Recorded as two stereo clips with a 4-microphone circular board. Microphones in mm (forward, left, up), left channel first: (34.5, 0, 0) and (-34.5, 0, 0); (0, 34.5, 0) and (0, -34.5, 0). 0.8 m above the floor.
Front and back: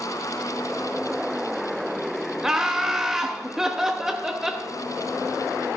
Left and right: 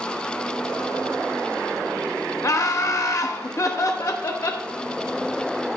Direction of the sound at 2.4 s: 100° left.